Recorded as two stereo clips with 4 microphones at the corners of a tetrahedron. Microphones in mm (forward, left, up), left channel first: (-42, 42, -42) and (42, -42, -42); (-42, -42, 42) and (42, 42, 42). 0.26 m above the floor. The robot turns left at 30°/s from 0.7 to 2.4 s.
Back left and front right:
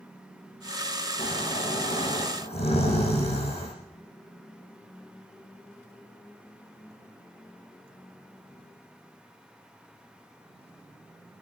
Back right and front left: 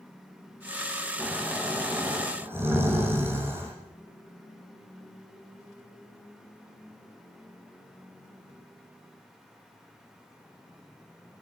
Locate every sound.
1.2 s snoring: 150° left, 9.5 m; by 3.7 s 115° left, 9.5 m